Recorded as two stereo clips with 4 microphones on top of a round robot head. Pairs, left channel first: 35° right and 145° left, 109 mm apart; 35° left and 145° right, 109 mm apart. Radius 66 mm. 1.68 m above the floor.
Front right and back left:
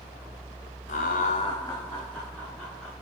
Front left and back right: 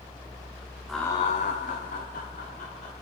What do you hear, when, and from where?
0.9 s laughter: 55° right, 0.6 m; by 2.9 s 55° left, 2.5 m